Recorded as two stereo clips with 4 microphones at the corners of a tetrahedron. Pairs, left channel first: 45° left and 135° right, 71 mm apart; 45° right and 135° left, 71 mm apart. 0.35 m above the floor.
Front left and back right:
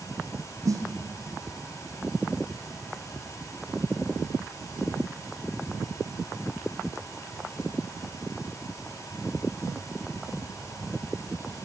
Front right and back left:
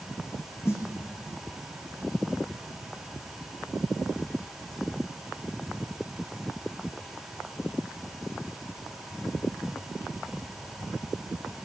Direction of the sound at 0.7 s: 100° right.